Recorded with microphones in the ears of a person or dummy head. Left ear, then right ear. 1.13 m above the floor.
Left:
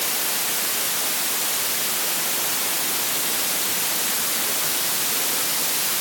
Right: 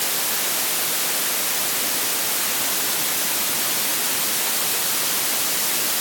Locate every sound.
Only background noise.